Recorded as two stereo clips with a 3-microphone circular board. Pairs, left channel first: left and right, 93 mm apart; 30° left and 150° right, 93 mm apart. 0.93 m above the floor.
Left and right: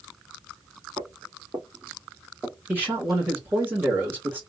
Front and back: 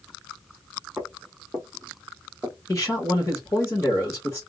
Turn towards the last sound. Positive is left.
turn(degrees=-25)